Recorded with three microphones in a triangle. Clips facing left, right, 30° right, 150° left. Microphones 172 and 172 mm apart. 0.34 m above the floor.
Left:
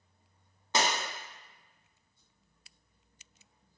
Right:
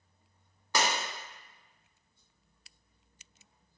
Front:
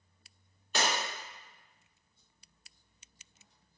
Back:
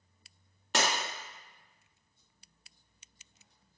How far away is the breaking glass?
About 0.7 m.